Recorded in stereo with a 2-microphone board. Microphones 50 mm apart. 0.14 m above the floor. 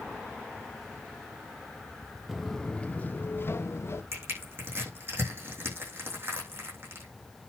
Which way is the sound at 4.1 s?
45° right (ahead or behind).